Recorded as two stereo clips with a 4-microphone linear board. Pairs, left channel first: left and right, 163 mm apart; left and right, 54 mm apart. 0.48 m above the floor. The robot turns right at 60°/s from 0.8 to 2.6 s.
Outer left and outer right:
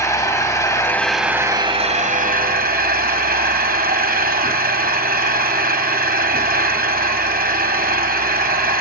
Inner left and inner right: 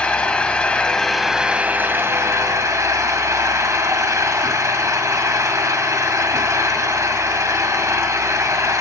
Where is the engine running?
160° left, 1.5 m; by 8.8 s 95° right, 1.5 m.